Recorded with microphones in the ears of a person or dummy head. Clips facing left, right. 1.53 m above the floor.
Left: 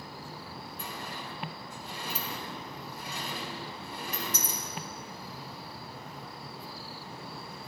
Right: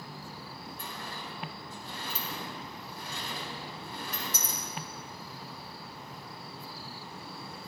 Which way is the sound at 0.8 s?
15° left (ahead or behind).